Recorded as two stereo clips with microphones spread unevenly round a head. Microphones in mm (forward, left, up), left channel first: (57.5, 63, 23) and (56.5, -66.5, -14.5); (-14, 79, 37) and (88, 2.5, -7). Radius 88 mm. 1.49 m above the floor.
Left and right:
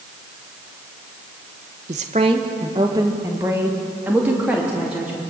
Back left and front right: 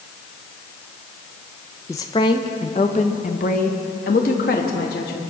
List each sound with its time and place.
1.9 s a woman speaking: 145° right, 1.2 m; by 5.2 s straight behind, 3.5 m